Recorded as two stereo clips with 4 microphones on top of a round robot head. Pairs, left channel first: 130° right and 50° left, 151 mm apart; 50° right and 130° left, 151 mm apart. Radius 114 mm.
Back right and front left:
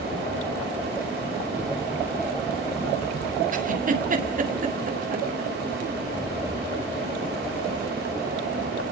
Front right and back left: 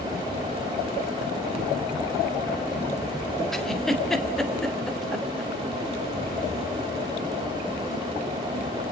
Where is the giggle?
35° left, 2.5 m.